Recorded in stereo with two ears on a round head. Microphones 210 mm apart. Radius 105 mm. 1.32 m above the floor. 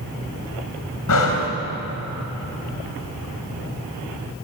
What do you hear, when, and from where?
1.1 s breathing: 70° left (ahead or behind), 3 m